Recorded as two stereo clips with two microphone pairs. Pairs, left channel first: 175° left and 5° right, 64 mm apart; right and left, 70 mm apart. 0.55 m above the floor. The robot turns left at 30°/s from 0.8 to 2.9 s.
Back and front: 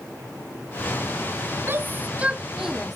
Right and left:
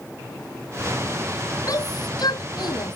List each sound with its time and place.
1.7 s a shout: 55° right; by 3.0 s 95° right